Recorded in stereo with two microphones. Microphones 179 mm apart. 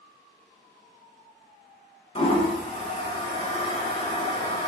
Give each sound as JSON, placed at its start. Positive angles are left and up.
{"t": 2.1, "sound": "a toilet flushing", "side_deg": 35, "distance_m": 0.6}